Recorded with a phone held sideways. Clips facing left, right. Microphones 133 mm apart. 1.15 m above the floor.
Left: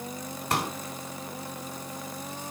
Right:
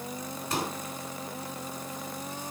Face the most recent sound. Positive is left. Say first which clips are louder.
# left 3 dB
turn(degrees=65)  # may be behind; listen again after turning